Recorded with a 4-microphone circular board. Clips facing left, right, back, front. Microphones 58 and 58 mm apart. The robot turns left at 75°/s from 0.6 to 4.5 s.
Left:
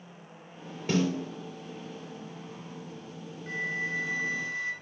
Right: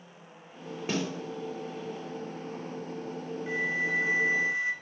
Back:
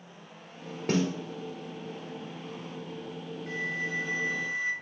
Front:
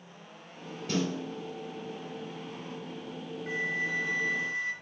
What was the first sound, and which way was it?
A snare drum, 160° right.